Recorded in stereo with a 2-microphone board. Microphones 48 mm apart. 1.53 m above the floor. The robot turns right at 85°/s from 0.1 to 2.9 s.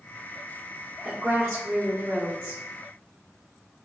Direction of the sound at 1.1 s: 150° right.